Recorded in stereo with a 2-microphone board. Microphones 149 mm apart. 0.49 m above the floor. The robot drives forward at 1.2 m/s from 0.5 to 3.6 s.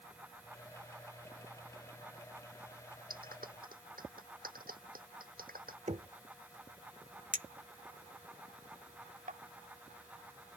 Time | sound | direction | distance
3.1 | a clap | 75° right (ahead or behind) | ?
5.9 | knocking | 50° right (ahead or behind) | ?
7.3 | a clink | 65° right (ahead or behind) | ?